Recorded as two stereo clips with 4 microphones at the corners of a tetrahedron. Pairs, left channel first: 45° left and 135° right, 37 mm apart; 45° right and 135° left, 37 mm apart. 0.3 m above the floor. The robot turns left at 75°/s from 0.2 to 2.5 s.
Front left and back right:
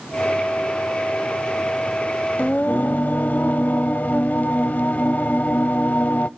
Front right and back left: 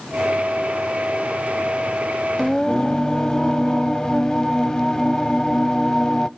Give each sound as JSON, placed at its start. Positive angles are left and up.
{"t": 2.4, "sound": "singing", "azimuth_deg": 35, "distance_m": 0.6}